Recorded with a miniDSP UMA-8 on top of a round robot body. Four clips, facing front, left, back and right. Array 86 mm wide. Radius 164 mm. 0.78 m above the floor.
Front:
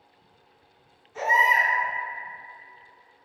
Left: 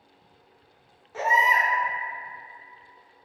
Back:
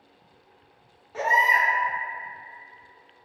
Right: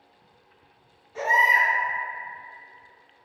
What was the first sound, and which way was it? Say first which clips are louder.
A baby crying: even, even; 135° left.